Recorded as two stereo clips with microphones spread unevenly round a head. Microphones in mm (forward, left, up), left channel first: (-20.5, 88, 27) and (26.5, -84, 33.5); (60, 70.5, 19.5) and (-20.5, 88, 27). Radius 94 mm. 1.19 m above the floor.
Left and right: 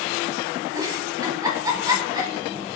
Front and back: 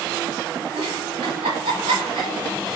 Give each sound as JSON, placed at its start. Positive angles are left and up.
{"t": 0.8, "sound": "a giggle", "azimuth_deg": -145, "distance_m": 4.5}